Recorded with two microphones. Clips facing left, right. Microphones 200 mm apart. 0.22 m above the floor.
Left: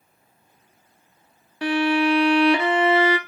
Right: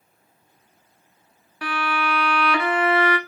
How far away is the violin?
About 0.8 m.